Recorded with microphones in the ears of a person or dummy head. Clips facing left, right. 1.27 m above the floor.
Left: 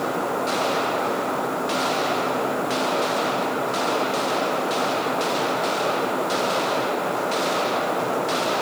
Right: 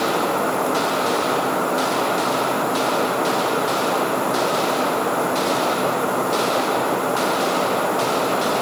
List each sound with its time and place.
Only background noise.